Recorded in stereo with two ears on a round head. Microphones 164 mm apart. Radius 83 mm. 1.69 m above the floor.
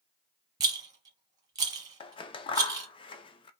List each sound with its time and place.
0.6 s a rattle: 20° right (ahead or behind), 1.1 m
2.0 s scissors: 30° left (ahead or behind), 0.5 m